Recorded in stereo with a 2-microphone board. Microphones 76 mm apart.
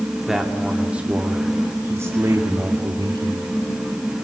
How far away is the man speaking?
About 3 m.